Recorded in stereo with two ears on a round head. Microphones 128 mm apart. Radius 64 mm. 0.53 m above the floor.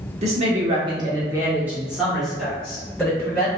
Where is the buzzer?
No buzzer in this recording.